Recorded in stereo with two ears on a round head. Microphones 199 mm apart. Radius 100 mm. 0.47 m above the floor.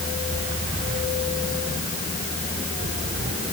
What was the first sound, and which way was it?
Only background noise.